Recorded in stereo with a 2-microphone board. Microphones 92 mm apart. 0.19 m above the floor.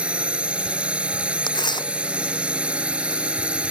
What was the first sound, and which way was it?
A drone, 10° right (ahead or behind).